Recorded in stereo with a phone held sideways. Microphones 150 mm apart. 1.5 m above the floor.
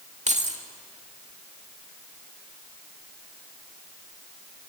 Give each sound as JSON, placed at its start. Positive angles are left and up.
{"t": 0.3, "sound": "keys jangling", "side_deg": -50, "distance_m": 2.0}